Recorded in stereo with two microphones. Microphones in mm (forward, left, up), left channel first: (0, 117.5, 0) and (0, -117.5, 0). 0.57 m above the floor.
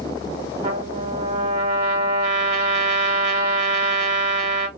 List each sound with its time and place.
0.6 s a trumpet: 30° right (ahead or behind), 1.3 m